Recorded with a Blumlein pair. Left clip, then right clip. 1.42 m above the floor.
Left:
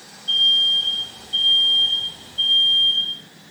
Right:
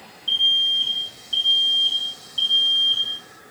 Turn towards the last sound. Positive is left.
turn(degrees=-25)